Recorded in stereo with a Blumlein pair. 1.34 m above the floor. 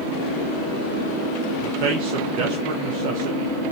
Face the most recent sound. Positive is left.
turn(degrees=-45)